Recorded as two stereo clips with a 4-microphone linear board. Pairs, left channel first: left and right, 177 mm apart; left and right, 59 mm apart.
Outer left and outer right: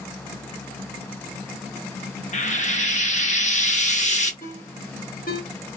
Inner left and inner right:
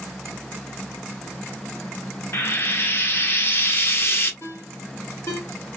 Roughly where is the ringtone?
Left.